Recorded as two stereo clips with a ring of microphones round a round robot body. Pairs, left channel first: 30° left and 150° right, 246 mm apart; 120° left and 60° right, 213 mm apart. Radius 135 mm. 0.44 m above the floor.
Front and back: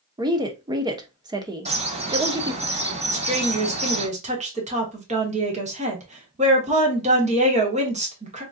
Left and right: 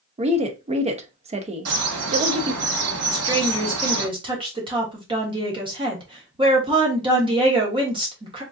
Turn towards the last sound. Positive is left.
turn(degrees=-110)